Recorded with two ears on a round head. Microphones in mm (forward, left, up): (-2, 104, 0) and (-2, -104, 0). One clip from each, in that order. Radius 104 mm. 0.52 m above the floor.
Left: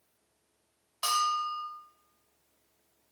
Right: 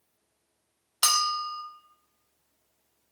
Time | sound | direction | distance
1.0 | a bell | 65° right (ahead or behind) | 0.5 m